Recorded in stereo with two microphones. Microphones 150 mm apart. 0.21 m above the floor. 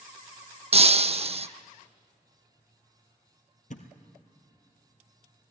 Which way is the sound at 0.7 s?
45° right (ahead or behind).